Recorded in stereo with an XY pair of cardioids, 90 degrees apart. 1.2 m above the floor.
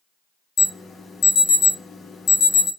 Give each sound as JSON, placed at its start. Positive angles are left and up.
{"t": 0.6, "sound": "an alarm", "azimuth_deg": 65, "distance_m": 1.5}